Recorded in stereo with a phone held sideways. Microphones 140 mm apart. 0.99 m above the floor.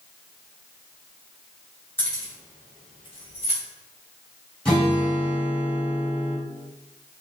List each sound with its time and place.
2.0 s keys jangling: 15° left (ahead or behind), 1.9 m; by 3.6 s 50° left (ahead or behind), 2 m
4.7 s a guitar: 5° left (ahead or behind), 1.9 m